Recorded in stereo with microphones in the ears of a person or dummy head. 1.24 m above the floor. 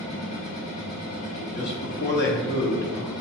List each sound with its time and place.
0.0 s a machine running: 45° left (ahead or behind), 1.5 m
1.6 s a man speaking: 50° left (ahead or behind), 0.7 m